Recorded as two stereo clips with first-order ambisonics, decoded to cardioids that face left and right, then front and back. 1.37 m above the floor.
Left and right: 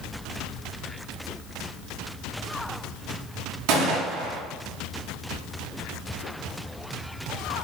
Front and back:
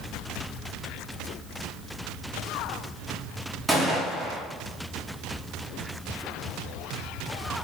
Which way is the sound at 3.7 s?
95° right.